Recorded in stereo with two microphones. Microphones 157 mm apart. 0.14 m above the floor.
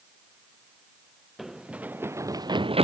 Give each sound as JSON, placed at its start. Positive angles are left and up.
{"t": 1.4, "sound": "running footsteps", "side_deg": 0}